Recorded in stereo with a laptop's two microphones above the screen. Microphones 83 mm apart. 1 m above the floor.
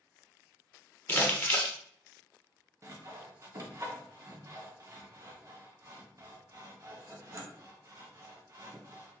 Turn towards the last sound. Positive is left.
turn(degrees=-40)  # may be behind; listen again after turning